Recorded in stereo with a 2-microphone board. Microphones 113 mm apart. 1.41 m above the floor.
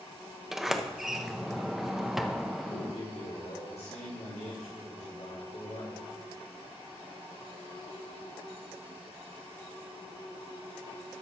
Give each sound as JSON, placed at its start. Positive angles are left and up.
{"t": 0.5, "sound": "a sliding door", "side_deg": -5, "distance_m": 0.7}
{"t": 2.7, "sound": "a man speaking", "side_deg": 75, "distance_m": 1.9}